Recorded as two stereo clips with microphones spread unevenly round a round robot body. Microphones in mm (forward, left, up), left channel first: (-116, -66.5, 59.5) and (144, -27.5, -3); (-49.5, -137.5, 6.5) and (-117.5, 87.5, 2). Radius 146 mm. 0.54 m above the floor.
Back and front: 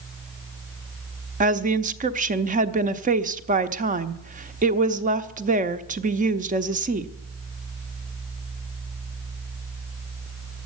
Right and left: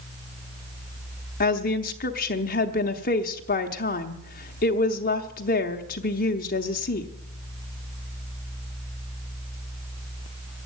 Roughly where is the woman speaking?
Ahead right.